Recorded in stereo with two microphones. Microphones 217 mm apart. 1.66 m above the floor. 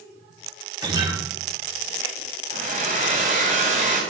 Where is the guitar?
20° right (ahead or behind), 1.3 m.